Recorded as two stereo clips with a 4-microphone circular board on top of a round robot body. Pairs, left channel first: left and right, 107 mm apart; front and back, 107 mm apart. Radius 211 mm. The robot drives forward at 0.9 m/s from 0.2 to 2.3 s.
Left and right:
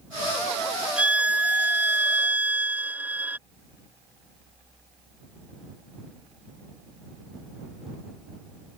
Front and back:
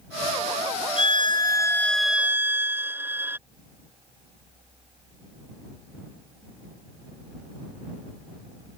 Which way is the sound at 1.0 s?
10° right.